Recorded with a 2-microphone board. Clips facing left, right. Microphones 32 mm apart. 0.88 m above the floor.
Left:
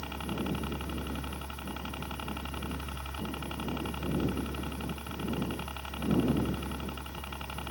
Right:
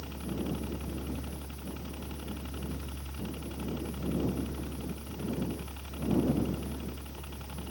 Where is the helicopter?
50° left (ahead or behind).